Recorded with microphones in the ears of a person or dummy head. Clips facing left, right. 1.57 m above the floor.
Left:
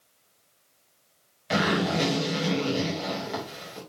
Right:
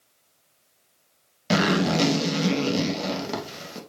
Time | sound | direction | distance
1.5 | a zipper | 55° right (ahead or behind) | 2 m